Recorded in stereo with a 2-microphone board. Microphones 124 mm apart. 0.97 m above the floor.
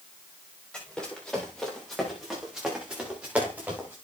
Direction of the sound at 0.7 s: 10° left (ahead or behind).